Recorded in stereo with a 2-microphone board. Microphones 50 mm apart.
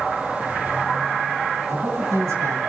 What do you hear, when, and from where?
1.7 s a man speaking: 75° right (ahead or behind), 6.5 m